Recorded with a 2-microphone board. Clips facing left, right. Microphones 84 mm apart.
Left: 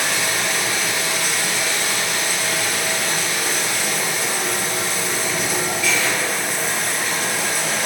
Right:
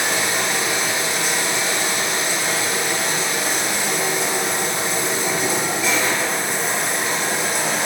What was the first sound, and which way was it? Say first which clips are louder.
Running water: right 1 dB; 25° right (ahead or behind).